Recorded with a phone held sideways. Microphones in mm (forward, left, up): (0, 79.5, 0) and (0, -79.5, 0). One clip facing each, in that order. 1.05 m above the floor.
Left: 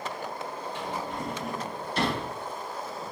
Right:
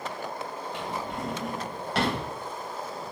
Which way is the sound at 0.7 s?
85° right.